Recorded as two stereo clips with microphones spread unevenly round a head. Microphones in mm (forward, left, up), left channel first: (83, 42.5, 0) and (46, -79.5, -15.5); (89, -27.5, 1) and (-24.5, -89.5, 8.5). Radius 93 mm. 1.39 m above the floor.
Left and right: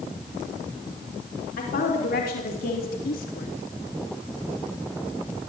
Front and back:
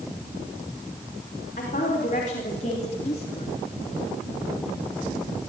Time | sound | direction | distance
1.6 | a woman speaking | 80° left | 4.5 m